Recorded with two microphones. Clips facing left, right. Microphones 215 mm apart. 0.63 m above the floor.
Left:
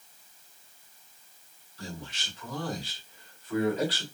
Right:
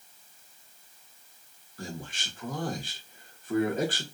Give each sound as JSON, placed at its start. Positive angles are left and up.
{"t": 1.8, "sound": "a man speaking", "side_deg": -50, "distance_m": 1.3}